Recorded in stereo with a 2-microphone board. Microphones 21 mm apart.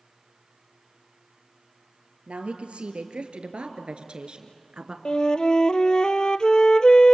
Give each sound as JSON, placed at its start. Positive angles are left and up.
{"t": 2.3, "sound": "a woman speaking", "side_deg": -65, "distance_m": 3.0}
{"t": 5.0, "sound": "a flute", "side_deg": 40, "distance_m": 0.6}